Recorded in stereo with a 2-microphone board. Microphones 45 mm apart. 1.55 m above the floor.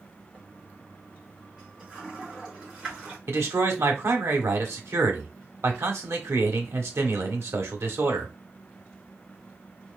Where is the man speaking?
75° right (ahead or behind), 1.2 m.